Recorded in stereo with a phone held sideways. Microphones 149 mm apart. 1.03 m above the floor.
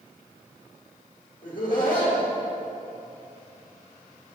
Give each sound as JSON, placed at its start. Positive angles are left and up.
{"t": 1.4, "sound": "laughter", "side_deg": 70, "distance_m": 1.6}